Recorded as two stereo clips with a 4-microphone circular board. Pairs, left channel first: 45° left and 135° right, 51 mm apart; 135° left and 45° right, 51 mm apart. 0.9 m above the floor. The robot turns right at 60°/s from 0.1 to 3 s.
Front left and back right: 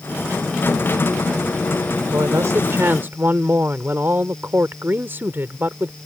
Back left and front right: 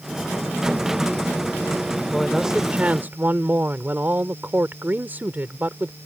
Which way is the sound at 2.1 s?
145° right.